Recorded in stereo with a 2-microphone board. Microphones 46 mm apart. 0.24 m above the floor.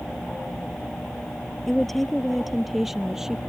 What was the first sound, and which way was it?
A woman speaking, 5° left (ahead or behind).